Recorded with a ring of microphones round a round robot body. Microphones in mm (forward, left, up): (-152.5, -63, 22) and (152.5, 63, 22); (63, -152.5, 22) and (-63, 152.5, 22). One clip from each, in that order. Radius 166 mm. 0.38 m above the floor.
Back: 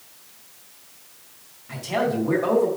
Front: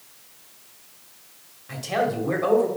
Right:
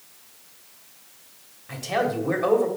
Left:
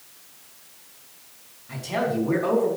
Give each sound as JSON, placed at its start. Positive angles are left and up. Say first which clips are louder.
{"t": 1.7, "sound": "a man speaking", "louder": "even, right 1 dB", "azimuth_deg": -40, "distance_m": 2.0}